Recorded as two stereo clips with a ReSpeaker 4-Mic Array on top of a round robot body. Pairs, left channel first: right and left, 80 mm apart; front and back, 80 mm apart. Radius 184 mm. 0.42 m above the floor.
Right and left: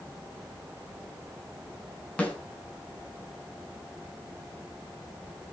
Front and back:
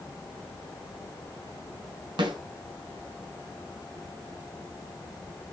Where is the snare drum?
165° right, 8.5 m.